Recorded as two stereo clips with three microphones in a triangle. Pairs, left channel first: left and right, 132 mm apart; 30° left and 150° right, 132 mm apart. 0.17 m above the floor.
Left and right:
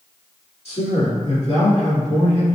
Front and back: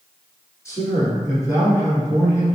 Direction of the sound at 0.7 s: 90° left.